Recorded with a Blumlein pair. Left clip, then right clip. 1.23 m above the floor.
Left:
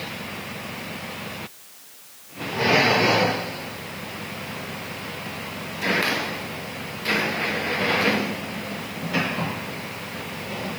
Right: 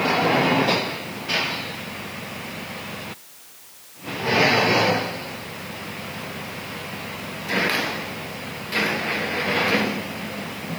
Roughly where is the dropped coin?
I don't hear a dropped coin.